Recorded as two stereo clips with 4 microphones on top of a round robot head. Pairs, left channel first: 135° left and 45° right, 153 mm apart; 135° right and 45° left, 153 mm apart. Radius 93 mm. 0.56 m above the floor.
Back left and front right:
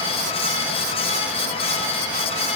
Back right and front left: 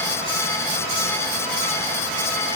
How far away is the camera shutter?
I don't hear a camera shutter.